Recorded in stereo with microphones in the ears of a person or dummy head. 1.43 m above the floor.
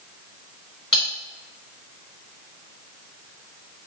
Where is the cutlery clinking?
Centre (ahead or behind), 1.5 m.